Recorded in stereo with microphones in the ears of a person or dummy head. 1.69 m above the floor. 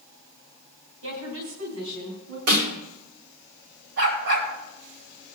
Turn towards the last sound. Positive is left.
turn(degrees=-60)  # may be behind; listen again after turning